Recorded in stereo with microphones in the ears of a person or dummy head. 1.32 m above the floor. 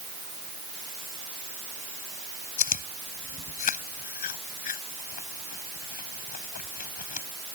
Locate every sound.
2.6 s chewing: 50° left (ahead or behind)